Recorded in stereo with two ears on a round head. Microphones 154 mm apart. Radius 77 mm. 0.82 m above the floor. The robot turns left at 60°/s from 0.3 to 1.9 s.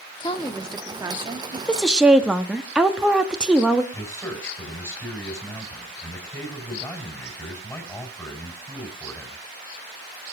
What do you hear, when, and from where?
0.2 s a woman speaking: 25° left, 1.2 m; by 1.6 s 50° right, 1.2 m
1.7 s a woman speaking: 5° left (ahead or behind), 1.2 m; by 3.8 s 5° right (ahead or behind), 1.2 m
3.9 s a man speaking: 15° left (ahead or behind), 4.5 m